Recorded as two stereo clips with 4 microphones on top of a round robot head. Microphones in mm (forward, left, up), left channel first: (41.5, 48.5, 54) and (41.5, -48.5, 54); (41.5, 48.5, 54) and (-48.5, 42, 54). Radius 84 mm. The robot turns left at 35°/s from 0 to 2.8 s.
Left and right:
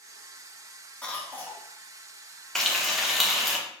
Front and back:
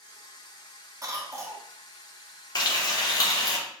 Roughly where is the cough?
Behind.